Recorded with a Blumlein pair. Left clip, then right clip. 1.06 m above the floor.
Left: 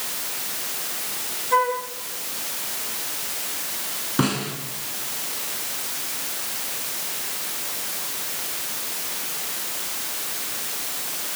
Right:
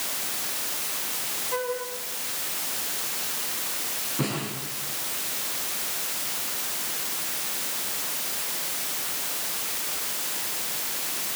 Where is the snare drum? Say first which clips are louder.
Left 8 dB; 30° left, 6 m.